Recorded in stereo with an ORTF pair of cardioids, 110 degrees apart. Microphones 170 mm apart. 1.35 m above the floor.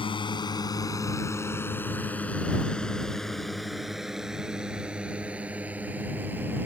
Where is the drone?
30° left; by 6.7 s 10° right.